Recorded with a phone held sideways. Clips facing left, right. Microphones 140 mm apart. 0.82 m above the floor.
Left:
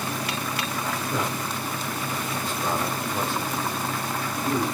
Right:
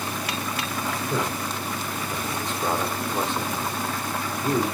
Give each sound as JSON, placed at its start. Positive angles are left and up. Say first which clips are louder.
{"t": 1.1, "sound": "a man speaking", "louder": "right 1 dB", "side_deg": -20, "distance_m": 2.5}